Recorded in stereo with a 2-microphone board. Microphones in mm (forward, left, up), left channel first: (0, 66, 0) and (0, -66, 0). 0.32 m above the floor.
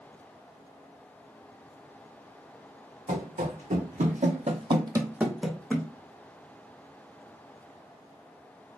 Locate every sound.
3.1 s running footsteps: 70° right (ahead or behind), 1.1 m; by 5.9 s 15° left (ahead or behind), 0.8 m